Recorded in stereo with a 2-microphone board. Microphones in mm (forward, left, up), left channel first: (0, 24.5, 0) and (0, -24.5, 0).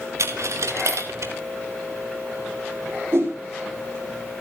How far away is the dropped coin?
About 2 m.